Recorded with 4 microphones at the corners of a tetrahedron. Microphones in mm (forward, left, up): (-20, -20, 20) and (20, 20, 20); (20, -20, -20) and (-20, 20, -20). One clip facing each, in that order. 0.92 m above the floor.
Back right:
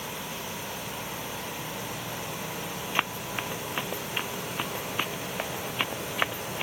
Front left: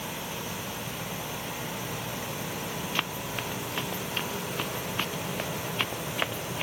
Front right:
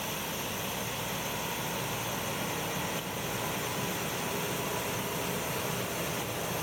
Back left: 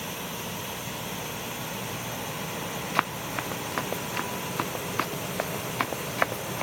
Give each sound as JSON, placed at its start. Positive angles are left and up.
{"t": 3.0, "sound": "running footsteps", "azimuth_deg": 155}